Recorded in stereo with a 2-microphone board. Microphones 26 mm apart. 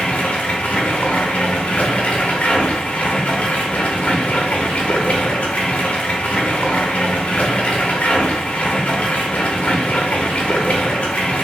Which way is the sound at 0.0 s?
70° left (ahead or behind).